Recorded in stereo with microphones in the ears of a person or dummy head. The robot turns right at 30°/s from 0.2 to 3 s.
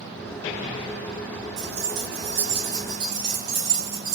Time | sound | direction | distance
1.6 | keys jangling | 110° right | 1.4 m